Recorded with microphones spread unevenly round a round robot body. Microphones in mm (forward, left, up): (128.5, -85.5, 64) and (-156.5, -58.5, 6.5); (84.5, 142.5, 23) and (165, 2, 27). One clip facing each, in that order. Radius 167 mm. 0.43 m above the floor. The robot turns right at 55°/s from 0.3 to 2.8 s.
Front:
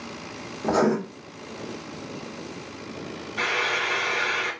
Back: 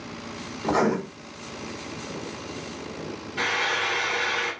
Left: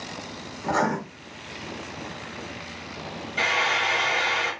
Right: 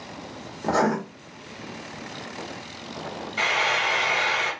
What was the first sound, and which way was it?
Writing, 40° right.